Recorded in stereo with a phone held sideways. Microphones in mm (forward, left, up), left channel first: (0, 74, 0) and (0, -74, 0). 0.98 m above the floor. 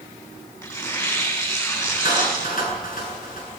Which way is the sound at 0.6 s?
25° left (ahead or behind).